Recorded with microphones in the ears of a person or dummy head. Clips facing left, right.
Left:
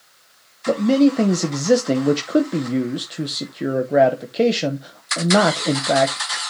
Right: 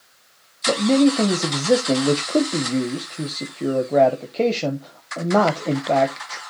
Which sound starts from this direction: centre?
A man speaking, at 0.7 s.